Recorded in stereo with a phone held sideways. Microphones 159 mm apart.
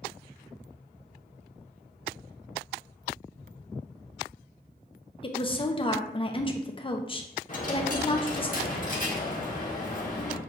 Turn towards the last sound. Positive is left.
turn(degrees=50)  # may be behind; listen again after turning